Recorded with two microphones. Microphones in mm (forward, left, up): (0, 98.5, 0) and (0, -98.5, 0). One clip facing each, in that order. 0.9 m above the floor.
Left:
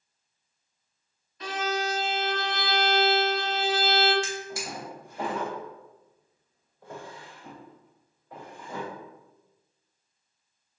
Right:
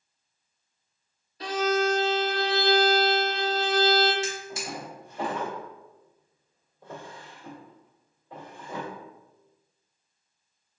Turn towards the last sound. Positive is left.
turn(degrees=-25)  # may be behind; listen again after turning